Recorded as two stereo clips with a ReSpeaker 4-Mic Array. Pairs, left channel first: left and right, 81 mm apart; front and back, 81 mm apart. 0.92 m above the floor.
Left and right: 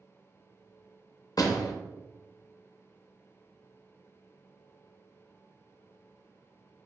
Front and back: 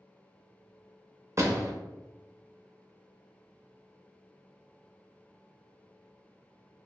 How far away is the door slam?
About 0.6 m.